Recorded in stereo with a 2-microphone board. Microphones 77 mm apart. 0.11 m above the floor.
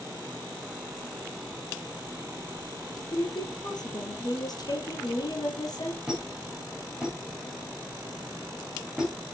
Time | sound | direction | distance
3.1 | a woman speaking | 55° left (ahead or behind) | 3 m
6.1 | a squeak | 10° right (ahead or behind) | 7 m